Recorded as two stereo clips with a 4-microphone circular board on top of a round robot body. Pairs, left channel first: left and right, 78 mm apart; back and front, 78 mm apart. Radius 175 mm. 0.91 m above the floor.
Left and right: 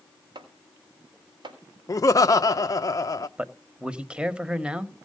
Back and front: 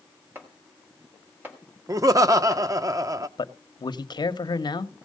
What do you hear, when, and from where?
0.3 s chopping: 65° right, 3.5 m
1.9 s laughter: 45° left, 0.7 m
3.4 s a man speaking: 165° right, 1.3 m